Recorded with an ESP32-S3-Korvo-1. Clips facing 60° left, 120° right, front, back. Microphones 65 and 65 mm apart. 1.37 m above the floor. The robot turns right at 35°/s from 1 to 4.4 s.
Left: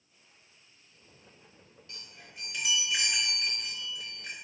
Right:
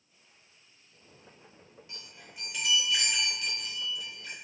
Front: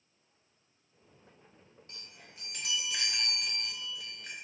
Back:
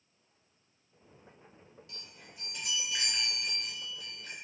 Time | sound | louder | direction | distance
1.9 | a chime | left 1 dB, front 2 dB | 50° right | 0.7 m